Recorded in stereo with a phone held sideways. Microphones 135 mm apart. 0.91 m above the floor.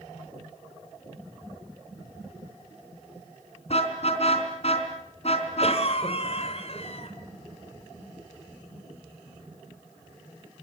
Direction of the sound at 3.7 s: 50° left (ahead or behind).